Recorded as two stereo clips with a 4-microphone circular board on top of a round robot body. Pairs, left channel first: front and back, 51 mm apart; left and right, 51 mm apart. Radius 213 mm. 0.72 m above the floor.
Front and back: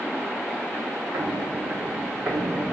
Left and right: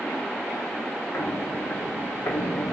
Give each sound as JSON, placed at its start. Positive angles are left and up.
{"t": 1.1, "sound": "footsteps", "azimuth_deg": 145, "distance_m": 3.0}